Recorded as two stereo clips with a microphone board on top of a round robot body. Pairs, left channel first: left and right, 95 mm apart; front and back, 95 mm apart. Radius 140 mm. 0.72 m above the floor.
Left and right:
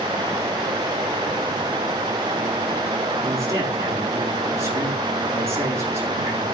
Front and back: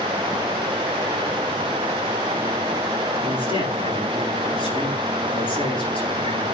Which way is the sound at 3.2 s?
30° right.